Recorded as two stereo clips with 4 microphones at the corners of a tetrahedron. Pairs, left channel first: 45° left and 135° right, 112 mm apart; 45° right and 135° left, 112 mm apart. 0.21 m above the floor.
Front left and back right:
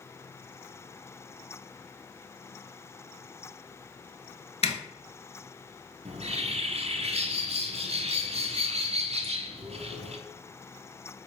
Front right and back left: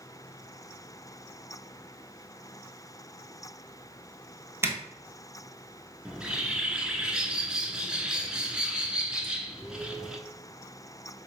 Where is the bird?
145° right, 0.6 m.